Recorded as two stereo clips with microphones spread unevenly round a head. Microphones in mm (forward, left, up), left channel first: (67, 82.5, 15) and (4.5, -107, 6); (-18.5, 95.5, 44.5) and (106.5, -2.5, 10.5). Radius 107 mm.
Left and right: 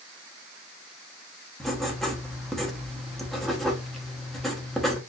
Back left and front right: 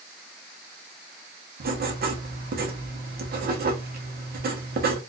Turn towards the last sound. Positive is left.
turn(degrees=-20)